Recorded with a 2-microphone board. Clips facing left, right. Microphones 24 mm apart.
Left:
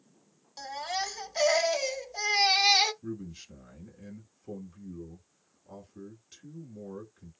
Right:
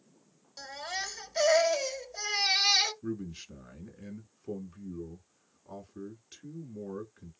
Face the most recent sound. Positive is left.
turn(degrees=-15)  # may be behind; listen again after turning